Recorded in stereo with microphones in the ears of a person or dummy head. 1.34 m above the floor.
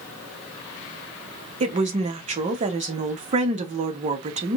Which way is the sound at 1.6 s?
35° right (ahead or behind).